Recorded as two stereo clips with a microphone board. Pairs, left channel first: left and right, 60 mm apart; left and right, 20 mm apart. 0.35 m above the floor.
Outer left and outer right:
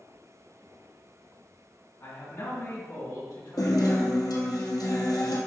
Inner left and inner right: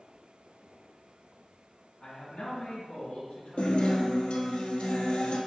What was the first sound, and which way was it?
A man speaking, 60° left (ahead or behind).